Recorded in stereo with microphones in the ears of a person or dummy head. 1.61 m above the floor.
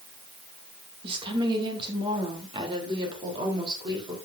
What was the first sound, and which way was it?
A woman speaking, 25° right (ahead or behind).